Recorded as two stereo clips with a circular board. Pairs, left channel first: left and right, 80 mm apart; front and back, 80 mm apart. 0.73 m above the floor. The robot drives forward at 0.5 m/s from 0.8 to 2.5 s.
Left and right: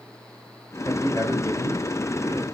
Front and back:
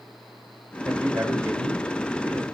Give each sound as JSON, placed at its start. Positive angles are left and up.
{"t": 0.8, "sound": "a man speaking", "azimuth_deg": 140, "distance_m": 3.5}